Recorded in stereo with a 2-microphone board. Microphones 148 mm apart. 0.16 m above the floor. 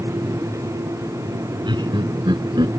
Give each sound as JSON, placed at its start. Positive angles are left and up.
{"t": 1.7, "sound": "laughter", "side_deg": -30}